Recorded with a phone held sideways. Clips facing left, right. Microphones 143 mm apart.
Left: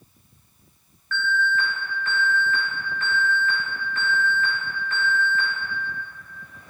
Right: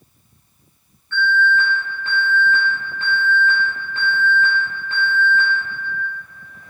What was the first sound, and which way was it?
An alarm, 30° right (ahead or behind).